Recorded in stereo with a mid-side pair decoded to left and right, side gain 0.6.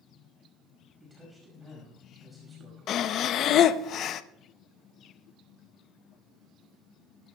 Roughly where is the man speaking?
Ahead.